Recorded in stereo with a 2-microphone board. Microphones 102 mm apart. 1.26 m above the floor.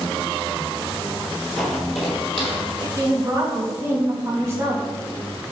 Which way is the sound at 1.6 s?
5° left (ahead or behind).